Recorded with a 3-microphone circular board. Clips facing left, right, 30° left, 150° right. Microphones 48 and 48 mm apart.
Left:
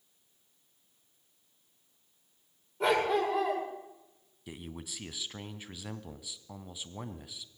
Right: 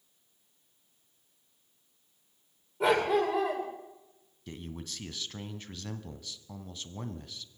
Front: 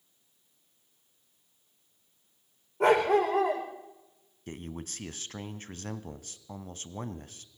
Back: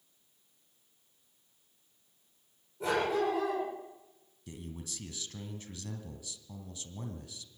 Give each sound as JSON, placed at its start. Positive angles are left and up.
{"t": 2.8, "sound": "a dog barking", "azimuth_deg": 0, "distance_m": 8.0}
{"t": 4.5, "sound": "a man speaking", "azimuth_deg": 15, "distance_m": 1.4}